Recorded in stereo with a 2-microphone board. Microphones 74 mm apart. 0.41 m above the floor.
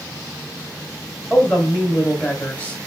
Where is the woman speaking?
15° left (ahead or behind), 3 m.